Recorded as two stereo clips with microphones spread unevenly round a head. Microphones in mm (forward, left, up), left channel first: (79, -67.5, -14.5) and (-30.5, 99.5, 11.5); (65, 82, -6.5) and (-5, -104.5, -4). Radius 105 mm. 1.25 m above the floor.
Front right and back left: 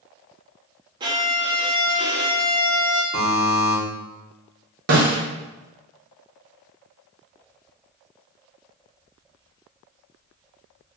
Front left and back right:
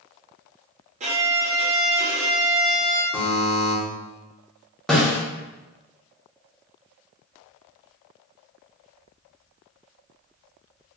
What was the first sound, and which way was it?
A violin, 170° right.